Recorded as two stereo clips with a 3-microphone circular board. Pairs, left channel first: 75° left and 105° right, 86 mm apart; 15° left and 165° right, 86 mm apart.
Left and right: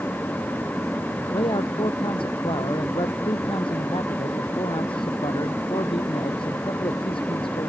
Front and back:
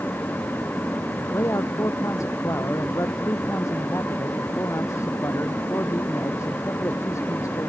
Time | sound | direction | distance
1.3 | a man speaking | 70° left | ?